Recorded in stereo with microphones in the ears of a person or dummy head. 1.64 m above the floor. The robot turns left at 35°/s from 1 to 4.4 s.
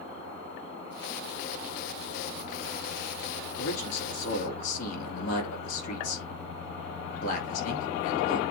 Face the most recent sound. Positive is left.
turn(degrees=50)  # may be behind; listen again after turning